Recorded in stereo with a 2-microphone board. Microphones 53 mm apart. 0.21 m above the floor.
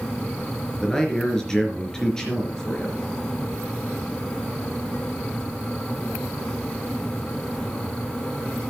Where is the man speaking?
10° left (ahead or behind), 4 m.